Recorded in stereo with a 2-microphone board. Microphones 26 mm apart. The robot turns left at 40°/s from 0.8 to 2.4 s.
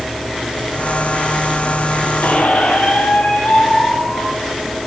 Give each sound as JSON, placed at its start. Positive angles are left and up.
{"t": 2.2, "sound": "a squeak", "side_deg": 65, "distance_m": 5.0}